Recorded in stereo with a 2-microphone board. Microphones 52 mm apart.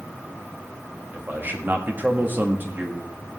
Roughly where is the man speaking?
Right.